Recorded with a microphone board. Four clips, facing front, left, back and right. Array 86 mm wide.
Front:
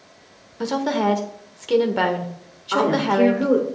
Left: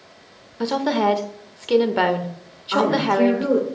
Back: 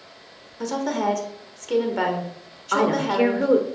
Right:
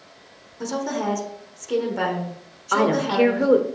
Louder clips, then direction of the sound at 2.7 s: Left 1 dB, front 2 dB; 110° right.